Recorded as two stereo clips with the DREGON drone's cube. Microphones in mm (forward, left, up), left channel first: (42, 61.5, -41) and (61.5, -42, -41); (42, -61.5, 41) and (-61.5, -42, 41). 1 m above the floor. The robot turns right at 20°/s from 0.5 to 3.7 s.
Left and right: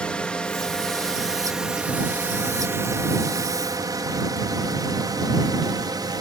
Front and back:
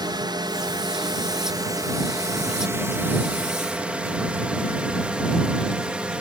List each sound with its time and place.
0.0 s a drone: 175° left; by 6.2 s 115° right